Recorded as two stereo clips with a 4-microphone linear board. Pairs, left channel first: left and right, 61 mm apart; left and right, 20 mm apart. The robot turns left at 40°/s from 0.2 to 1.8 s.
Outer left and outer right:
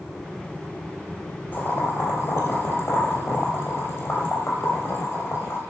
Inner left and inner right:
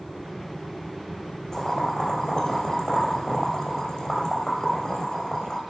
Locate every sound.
1.5 s boiling: 35° left (ahead or behind), 2.5 m; by 5.6 s 45° left (ahead or behind), 2.5 m